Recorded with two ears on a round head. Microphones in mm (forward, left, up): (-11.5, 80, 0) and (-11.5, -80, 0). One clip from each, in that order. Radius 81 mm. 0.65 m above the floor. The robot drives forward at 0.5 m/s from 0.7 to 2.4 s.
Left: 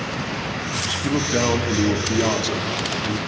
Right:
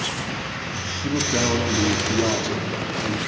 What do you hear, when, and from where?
1.0 s a man speaking: 25° left (ahead or behind), 0.8 m; by 3.2 s 15° left (ahead or behind), 1.1 m